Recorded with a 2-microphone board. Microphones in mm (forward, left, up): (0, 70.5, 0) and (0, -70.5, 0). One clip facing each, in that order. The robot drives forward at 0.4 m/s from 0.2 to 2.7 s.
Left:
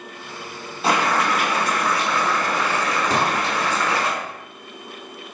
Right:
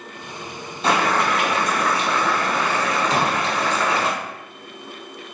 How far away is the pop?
About 1.1 m.